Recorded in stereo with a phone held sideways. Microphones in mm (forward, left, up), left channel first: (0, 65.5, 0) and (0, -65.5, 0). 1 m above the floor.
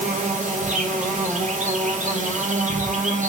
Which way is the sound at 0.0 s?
70° right (ahead or behind).